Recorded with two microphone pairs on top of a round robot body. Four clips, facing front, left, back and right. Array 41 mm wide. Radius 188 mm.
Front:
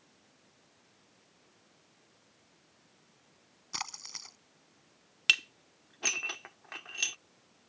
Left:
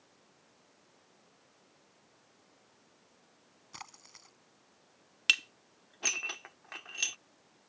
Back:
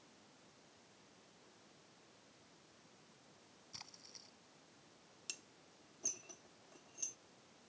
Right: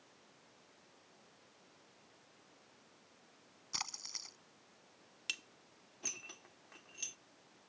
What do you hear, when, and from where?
3.7 s a splash: 10° right
5.3 s dishes clattering: 40° left